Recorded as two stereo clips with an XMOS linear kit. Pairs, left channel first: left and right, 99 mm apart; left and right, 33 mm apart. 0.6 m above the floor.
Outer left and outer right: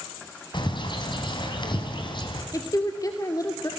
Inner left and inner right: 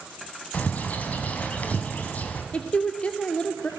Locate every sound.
0.5 s a bird: 50° left (ahead or behind), 3.5 m
2.5 s a woman speaking: 35° left (ahead or behind), 1.8 m